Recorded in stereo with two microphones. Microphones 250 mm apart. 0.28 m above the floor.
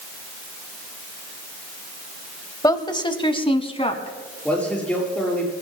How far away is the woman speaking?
About 1.1 m.